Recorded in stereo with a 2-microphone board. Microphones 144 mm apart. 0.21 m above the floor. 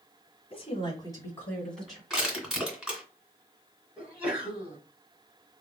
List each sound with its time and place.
0.5 s a woman speaking: 40° left (ahead or behind), 1.7 m; by 2.0 s centre (ahead or behind), 1.9 m
2.1 s crushing: centre (ahead or behind), 2.5 m
4.0 s a sneeze: 10° right (ahead or behind), 1.3 m